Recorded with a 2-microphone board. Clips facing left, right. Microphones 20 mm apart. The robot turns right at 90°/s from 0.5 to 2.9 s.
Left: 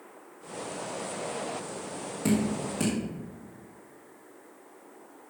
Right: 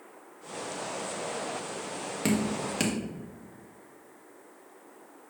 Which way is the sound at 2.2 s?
50° right (ahead or behind).